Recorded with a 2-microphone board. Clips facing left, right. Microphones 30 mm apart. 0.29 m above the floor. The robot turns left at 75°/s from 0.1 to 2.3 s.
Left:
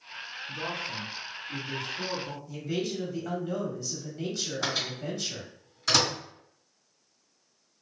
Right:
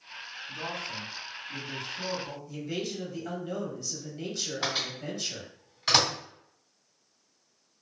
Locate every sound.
0.5 s a man speaking: 100° left, 2.0 m; by 2.4 s 40° right, 2.0 m
2.5 s a man speaking: 5° right (ahead or behind), 1.2 m
4.6 s a microwave: 30° right (ahead or behind), 1.7 m